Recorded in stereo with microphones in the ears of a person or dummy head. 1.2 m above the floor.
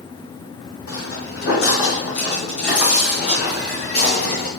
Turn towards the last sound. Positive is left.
turn(degrees=55)  # may be behind; listen again after turning